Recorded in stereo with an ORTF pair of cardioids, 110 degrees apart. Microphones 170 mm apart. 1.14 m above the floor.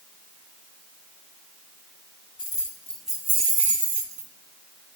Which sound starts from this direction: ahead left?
Keys jangling, at 2.4 s.